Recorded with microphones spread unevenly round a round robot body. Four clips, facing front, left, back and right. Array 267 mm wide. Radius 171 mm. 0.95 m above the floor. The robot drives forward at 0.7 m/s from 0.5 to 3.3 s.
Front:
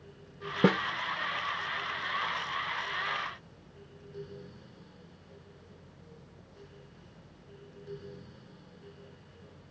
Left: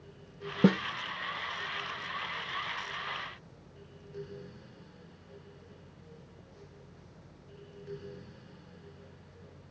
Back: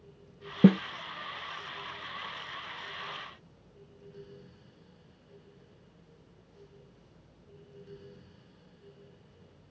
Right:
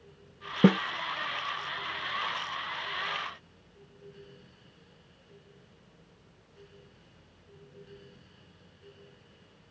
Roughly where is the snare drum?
Behind.